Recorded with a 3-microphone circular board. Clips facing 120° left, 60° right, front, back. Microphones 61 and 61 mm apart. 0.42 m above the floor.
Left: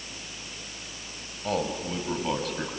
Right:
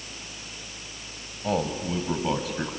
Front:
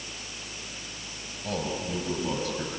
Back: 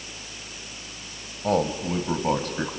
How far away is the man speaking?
About 2 m.